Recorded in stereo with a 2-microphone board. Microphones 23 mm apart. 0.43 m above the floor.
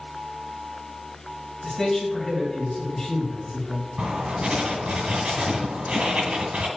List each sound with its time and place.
1.6 s a man speaking: 10° left (ahead or behind), 3.5 m
4.0 s writing: 60° right (ahead or behind), 1.4 m